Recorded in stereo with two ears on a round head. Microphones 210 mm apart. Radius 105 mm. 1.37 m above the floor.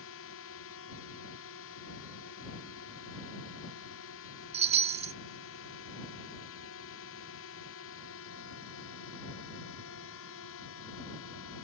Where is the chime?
25° right (ahead or behind).